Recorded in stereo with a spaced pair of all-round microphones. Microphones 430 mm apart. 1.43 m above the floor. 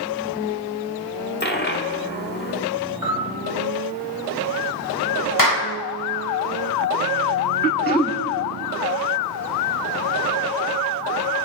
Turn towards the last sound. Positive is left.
turn(degrees=25)  # may be behind; listen again after turning